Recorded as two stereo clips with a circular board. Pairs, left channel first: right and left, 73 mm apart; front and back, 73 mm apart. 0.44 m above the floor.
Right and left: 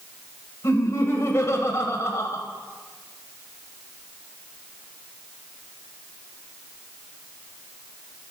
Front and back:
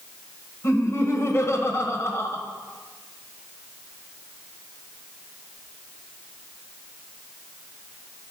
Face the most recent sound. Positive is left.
turn(degrees=-45)